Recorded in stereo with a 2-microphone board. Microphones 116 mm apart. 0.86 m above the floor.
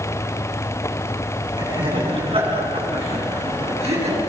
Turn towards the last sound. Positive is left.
turn(degrees=-65)  # may be behind; listen again after turning